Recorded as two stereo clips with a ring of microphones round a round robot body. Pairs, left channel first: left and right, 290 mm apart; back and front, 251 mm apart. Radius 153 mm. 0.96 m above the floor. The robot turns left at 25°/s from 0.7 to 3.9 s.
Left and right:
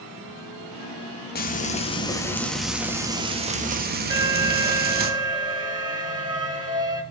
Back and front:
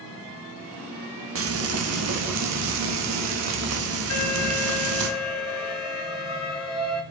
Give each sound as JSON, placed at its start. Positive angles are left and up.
{"t": 1.4, "sound": "frying", "azimuth_deg": 30, "distance_m": 1.4}
{"t": 4.1, "sound": "an alarm", "azimuth_deg": -165, "distance_m": 1.9}